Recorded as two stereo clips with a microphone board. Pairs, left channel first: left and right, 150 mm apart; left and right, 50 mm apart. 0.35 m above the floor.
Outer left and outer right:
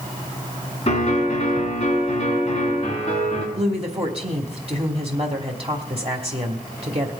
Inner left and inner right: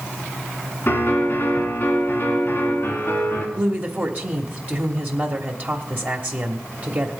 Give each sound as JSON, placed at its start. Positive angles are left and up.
{"t": 0.9, "sound": "a piano", "side_deg": 45, "distance_m": 3.5}
{"t": 3.5, "sound": "a woman speaking", "side_deg": -40, "distance_m": 1.1}